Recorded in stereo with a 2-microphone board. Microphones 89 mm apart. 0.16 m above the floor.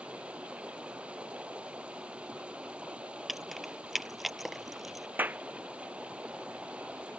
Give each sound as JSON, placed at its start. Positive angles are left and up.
{"t": 0.0, "sound": "running water", "side_deg": -10}
{"t": 3.3, "sound": "keys jangling", "side_deg": 0}
{"t": 5.2, "sound": "a clap", "side_deg": -20}